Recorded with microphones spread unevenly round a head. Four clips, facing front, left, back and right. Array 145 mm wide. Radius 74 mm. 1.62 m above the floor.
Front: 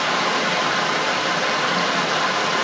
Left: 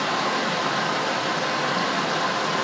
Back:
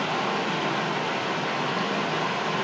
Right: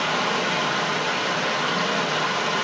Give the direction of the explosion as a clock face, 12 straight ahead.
No explosion in this recording.